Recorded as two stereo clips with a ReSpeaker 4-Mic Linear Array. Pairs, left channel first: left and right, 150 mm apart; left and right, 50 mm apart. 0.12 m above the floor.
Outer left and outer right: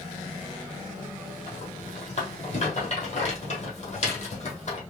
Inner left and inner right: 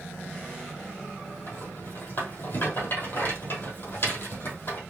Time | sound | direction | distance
1.5 | a rattle | 50° left (ahead or behind) | 2 m